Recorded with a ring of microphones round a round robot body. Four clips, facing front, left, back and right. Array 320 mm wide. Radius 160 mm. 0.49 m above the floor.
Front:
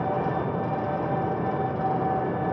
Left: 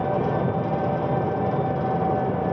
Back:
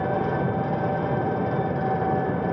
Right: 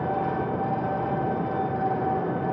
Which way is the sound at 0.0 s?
120° left.